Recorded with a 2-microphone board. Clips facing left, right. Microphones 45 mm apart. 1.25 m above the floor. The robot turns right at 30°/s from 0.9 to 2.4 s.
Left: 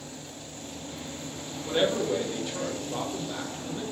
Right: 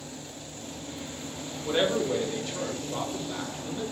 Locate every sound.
1.6 s a man speaking: 15° right (ahead or behind), 0.8 m; by 3.8 s 5° left (ahead or behind), 0.8 m